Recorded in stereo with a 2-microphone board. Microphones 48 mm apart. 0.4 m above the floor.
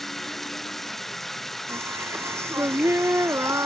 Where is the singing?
70° right (ahead or behind).